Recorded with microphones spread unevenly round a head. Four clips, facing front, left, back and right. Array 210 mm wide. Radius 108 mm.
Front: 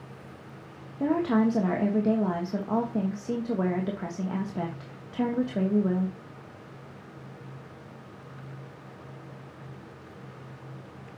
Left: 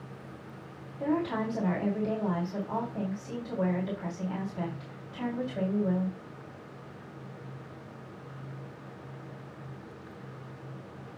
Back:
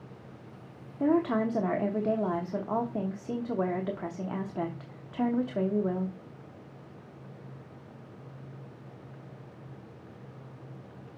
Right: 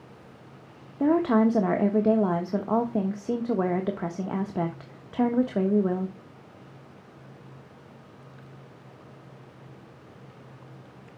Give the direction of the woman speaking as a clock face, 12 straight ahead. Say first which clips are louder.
Right 9 dB, front 2 dB; 3 o'clock.